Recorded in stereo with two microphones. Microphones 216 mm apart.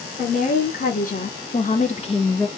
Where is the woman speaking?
35° left (ahead or behind), 1.6 m; by 2.5 s 10° left (ahead or behind), 0.5 m.